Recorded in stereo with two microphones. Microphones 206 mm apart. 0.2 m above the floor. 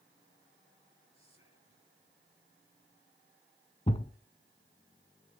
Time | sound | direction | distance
1.1 | whispering | 30° left (ahead or behind) | 4.5 m
3.9 | a thud | 30° left (ahead or behind) | 0.7 m